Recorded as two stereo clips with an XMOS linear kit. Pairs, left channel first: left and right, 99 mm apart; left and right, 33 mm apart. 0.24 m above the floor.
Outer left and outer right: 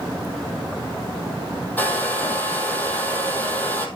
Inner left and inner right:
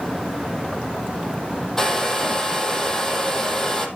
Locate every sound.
1.8 s a hair dryer: 15° left (ahead or behind), 3 m